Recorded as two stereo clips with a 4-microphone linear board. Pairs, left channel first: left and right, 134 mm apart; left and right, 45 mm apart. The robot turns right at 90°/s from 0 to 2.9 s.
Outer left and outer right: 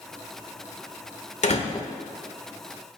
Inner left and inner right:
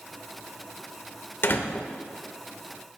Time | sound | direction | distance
1.4 | a door slam | 60° left (ahead or behind) | 1.2 m